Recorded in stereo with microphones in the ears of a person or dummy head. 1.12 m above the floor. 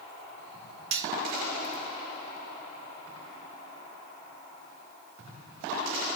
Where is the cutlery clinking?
70° right (ahead or behind), 0.8 m.